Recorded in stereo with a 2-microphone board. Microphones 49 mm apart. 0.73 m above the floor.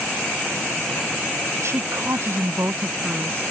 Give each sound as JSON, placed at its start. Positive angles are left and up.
{"t": 1.6, "sound": "a woman speaking", "side_deg": -60}